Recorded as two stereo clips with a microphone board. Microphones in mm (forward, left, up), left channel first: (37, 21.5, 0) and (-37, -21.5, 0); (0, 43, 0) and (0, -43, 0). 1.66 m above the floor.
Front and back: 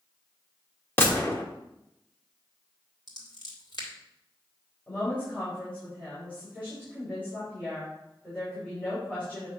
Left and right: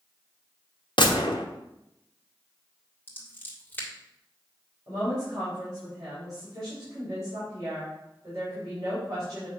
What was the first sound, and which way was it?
A gunshot, 90° left.